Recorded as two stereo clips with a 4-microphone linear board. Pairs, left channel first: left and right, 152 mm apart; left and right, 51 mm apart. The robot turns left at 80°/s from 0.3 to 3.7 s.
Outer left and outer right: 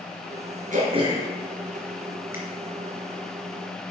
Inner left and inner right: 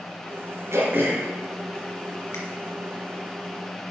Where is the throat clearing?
60° right (ahead or behind), 3 m; by 2.4 s 70° left (ahead or behind), 3 m.